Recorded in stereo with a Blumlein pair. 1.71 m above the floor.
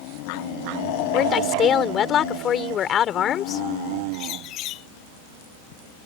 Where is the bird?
35° left.